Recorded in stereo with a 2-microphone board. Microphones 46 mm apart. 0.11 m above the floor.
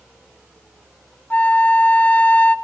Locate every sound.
1.3 s a flute: 40° left (ahead or behind), 0.7 m